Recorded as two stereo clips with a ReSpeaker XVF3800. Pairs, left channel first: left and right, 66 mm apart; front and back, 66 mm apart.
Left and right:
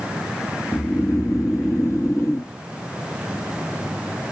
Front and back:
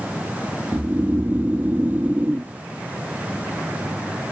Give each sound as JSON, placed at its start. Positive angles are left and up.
{"t": 0.7, "sound": "snoring", "azimuth_deg": 125, "distance_m": 0.8}